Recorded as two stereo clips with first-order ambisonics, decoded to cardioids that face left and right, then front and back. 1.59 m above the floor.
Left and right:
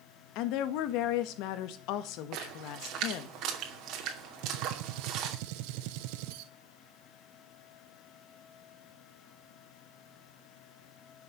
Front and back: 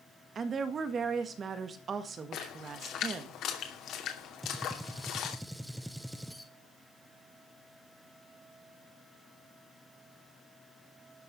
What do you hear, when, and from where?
0.3 s a woman speaking: 115° left, 1.6 m
2.3 s a splash: 50° right, 2.5 m
4.4 s a gunshot: 95° right, 0.9 m